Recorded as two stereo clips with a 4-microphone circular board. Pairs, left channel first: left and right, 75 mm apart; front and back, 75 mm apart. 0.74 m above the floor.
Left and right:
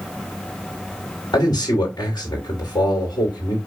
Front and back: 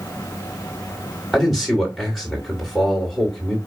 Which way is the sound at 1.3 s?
90° left.